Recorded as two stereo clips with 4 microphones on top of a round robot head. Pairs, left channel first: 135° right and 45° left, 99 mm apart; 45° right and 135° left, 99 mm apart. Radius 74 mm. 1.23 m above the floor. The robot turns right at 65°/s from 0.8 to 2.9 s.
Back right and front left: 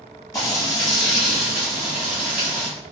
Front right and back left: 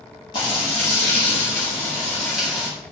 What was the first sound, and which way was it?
Frying, 75° right.